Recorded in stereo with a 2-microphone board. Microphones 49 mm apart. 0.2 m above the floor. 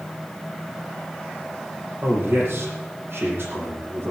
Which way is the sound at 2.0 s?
45° right (ahead or behind).